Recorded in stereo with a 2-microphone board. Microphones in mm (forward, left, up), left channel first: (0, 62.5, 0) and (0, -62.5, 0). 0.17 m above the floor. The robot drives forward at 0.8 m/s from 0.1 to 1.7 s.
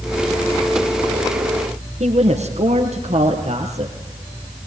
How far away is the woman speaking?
About 4.5 m.